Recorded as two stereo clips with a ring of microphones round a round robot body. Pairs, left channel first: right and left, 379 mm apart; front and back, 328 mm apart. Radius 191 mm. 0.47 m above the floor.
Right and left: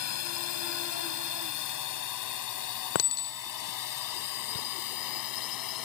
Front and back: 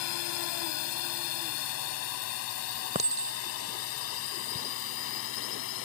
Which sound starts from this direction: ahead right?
A drone, at 0.0 s.